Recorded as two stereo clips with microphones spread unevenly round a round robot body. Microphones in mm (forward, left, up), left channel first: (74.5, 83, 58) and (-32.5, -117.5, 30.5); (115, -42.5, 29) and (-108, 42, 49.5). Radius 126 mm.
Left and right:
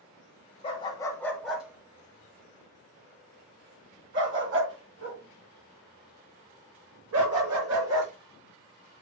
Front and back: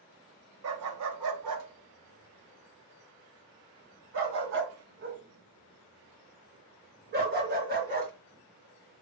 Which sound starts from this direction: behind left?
A dog barking, at 0.6 s.